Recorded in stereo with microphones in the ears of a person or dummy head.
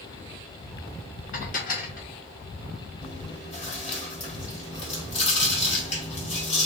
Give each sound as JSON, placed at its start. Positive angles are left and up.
{"t": 1.3, "sound": "dishes clattering", "side_deg": 45, "distance_m": 1.1}
{"t": 3.0, "sound": "chewing", "side_deg": 35, "distance_m": 1.4}